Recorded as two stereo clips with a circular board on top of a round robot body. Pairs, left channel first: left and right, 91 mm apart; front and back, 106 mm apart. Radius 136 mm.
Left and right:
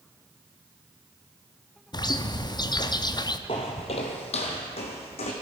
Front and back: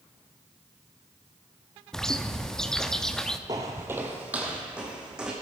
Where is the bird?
85° left, 0.8 m.